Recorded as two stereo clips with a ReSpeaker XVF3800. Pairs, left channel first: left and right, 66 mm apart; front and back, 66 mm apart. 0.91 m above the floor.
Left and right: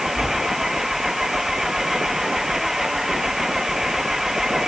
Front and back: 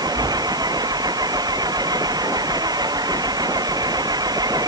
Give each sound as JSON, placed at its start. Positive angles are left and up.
{"t": 0.0, "sound": "an engine running", "azimuth_deg": -175}